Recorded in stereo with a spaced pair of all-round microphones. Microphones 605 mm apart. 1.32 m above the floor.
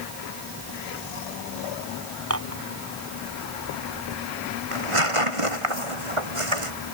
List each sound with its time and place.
2.3 s dishes clattering: 25° right (ahead or behind)
4.7 s tearing paper: 55° right (ahead or behind)